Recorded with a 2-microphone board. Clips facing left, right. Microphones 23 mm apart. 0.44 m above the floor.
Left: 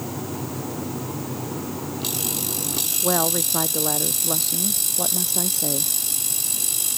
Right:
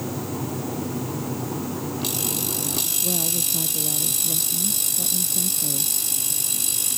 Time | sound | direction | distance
3.0 | a woman speaking | 75° left (ahead or behind) | ?